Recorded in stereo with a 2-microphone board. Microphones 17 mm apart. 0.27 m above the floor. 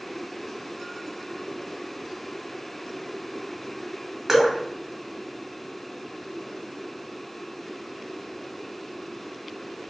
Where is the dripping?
25° right (ahead or behind), 0.9 m.